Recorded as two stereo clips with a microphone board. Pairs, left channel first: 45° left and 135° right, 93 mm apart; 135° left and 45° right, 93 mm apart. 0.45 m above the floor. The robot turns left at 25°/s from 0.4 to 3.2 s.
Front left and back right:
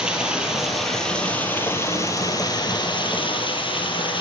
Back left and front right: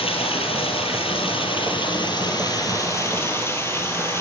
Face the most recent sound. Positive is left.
turn(degrees=70)